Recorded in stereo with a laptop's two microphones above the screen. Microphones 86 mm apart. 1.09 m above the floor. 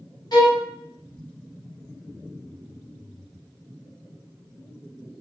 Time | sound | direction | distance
0.3 | a violin | 50° left (ahead or behind) | 0.7 m